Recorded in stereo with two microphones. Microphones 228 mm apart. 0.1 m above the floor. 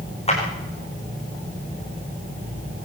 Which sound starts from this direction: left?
A clap, at 0.3 s.